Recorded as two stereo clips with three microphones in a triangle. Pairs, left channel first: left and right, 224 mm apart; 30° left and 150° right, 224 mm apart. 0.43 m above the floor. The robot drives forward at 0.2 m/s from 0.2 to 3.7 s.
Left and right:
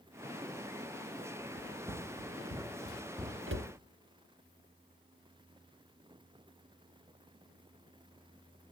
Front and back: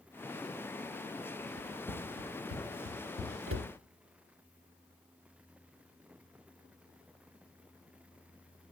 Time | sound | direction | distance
1.6 | running footsteps | 135° right | 1.7 m
3.5 | a cupboard door | 125° right | 0.7 m